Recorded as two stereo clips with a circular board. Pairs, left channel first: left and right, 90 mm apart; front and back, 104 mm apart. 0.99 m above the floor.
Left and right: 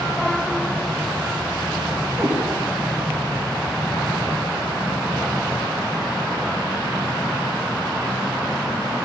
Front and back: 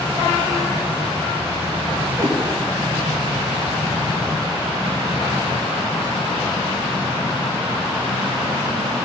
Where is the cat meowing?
135° right, 1.1 m.